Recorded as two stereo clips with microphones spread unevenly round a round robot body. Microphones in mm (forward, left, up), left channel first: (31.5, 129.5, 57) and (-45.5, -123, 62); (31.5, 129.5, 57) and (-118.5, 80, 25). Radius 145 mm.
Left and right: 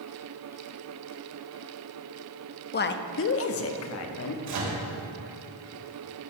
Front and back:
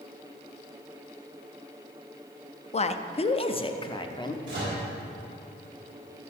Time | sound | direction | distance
2.7 | a woman speaking | 60° left | 0.7 m
4.5 | a microwave | 95° right | 3 m